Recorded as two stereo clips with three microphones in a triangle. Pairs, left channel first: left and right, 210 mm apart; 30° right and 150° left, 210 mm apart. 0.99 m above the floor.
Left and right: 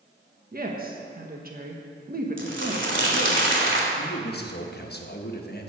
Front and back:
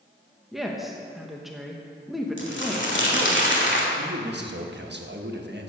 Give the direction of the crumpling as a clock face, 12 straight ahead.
2 o'clock.